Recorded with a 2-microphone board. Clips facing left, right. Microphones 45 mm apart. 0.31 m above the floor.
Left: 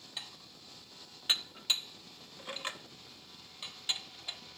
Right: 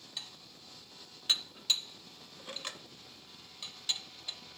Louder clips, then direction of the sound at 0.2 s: Even; 20° left (ahead or behind).